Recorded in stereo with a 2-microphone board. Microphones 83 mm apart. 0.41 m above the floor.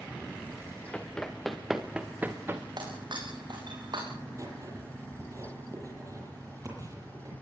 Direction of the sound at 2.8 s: 65° right (ahead or behind).